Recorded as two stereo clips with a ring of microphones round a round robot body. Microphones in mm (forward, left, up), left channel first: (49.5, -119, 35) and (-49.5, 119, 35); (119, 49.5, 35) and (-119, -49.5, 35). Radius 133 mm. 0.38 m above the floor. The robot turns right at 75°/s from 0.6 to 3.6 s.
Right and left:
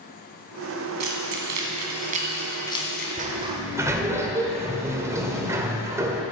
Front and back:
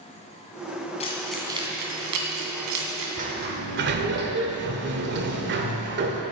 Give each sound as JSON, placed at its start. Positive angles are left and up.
{"t": 1.0, "sound": "keys jangling", "azimuth_deg": 90, "distance_m": 2.0}
{"t": 3.2, "sound": "a sliding door", "azimuth_deg": 155, "distance_m": 1.4}